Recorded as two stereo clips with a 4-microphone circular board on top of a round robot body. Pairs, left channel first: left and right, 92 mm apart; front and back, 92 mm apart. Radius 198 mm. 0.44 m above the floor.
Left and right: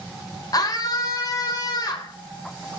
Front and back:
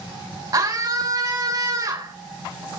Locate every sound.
0.5 s a scream: 135° left, 3.5 m